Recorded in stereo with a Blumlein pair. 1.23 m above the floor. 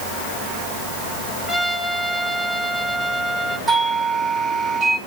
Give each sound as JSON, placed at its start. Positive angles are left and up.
{"t": 1.5, "sound": "a trumpet", "azimuth_deg": -5, "distance_m": 5.5}
{"t": 3.7, "sound": "a doorbell", "azimuth_deg": -15, "distance_m": 5.0}